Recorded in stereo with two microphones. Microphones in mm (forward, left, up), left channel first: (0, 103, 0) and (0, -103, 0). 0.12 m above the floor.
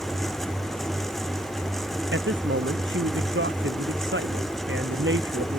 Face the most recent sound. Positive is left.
turn(degrees=-65)  # may be behind; listen again after turning